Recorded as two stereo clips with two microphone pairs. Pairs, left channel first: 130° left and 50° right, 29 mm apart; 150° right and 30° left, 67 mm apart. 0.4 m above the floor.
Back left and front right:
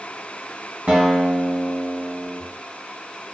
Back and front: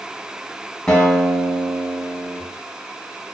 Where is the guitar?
75° right, 1.2 m.